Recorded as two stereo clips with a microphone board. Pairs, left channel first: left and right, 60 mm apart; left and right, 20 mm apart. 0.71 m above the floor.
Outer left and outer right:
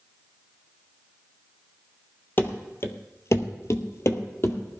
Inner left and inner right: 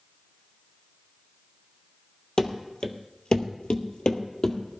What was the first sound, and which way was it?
Running footsteps, 40° left (ahead or behind).